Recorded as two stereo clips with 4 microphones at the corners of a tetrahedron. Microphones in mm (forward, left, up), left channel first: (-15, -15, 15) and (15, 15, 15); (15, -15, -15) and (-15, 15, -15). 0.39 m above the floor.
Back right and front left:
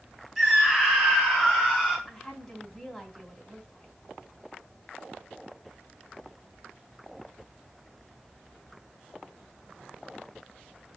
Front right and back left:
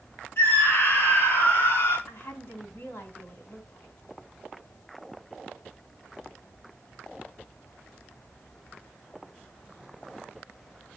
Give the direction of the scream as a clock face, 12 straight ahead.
1 o'clock.